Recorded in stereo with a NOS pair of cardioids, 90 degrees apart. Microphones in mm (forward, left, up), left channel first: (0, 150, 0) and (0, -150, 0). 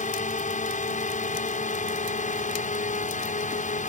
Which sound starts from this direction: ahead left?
A drone, at 0.0 s.